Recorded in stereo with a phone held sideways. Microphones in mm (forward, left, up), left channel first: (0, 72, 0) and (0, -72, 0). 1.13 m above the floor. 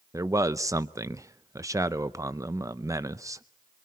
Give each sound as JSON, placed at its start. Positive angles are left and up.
{"t": 0.1, "sound": "a man speaking", "side_deg": -20, "distance_m": 0.6}